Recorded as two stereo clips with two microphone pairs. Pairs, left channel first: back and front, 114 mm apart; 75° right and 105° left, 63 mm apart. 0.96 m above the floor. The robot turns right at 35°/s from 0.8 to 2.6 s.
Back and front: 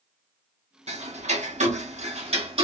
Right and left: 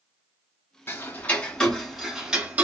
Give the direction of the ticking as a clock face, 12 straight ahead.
1 o'clock.